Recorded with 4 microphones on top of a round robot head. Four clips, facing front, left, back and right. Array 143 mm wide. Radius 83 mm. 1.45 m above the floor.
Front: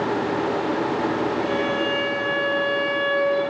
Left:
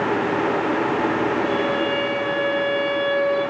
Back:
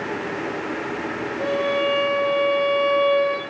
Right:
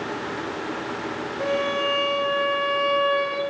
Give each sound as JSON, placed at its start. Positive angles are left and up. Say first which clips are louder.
{"t": 1.4, "sound": "a violin", "louder": "left 3 dB, back 1 dB", "azimuth_deg": -140, "distance_m": 6.0}